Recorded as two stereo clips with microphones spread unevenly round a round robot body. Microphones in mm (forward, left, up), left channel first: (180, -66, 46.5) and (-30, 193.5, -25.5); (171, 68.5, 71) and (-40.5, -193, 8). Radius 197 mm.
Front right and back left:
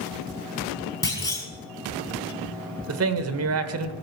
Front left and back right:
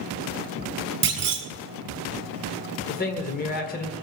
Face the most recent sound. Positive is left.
turn(degrees=120)